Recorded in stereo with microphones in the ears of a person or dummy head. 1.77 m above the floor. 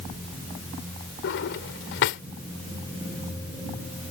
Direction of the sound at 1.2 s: 60° left (ahead or behind).